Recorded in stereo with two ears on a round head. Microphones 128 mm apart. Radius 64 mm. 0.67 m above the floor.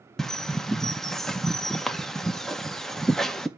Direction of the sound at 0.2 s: 5° left (ahead or behind).